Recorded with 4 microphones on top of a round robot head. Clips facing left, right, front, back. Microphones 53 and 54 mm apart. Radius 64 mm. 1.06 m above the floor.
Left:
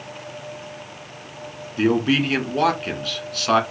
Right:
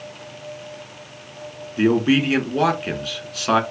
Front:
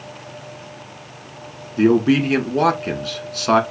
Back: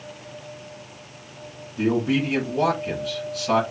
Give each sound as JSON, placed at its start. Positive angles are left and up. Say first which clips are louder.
{"t": 1.8, "sound": "a man speaking", "louder": "right 2 dB, front 7 dB", "azimuth_deg": -5, "distance_m": 1.8}